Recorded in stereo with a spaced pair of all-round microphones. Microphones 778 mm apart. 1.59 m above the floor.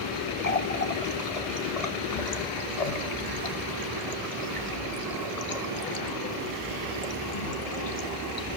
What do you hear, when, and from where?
0.4 s a running tap: 55° left (ahead or behind), 1.2 m